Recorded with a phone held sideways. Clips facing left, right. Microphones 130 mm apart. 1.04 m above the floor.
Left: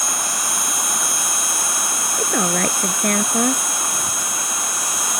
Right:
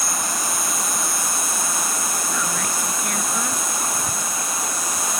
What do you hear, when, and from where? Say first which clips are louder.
0.0 s an insect: even; 80° left
2.2 s a woman speaking: left 6 dB; 55° left (ahead or behind)